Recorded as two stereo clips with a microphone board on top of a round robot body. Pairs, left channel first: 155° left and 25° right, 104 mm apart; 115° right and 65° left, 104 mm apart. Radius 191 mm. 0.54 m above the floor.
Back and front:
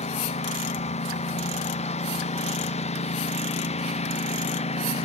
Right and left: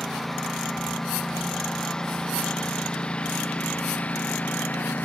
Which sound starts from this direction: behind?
A lawn mower, at 0.0 s.